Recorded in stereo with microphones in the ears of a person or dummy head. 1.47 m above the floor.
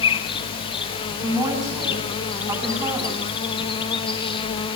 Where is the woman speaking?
20° right (ahead or behind), 10 m.